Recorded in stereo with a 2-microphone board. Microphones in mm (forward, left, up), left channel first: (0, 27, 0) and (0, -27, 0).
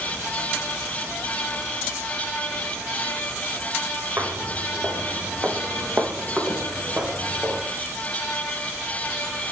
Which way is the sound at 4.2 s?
35° right (ahead or behind).